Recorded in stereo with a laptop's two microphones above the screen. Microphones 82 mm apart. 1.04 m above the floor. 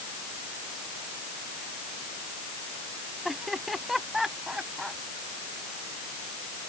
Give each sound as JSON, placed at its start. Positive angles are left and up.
{"t": 3.2, "sound": "laughter", "side_deg": -5}